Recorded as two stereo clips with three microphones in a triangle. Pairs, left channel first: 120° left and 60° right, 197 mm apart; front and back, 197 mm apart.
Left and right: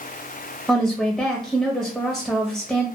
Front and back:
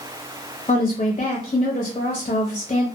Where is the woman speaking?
30° left, 0.5 m.